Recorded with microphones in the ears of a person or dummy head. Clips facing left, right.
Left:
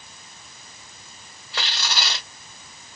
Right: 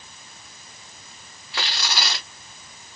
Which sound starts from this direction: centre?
Tearing paper, at 1.5 s.